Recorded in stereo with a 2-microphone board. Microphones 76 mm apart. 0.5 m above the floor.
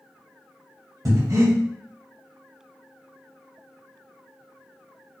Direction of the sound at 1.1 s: 55° right (ahead or behind).